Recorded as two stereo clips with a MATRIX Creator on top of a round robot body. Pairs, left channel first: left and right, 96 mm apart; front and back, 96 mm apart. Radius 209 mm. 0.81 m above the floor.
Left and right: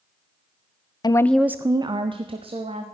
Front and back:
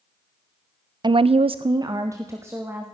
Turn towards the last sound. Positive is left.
turn(degrees=-110)